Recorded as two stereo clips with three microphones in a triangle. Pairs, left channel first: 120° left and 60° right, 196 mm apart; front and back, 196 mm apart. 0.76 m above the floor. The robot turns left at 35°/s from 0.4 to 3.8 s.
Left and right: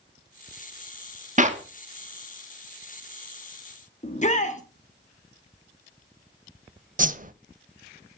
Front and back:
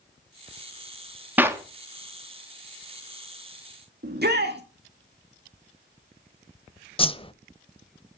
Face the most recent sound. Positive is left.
turn(degrees=-50)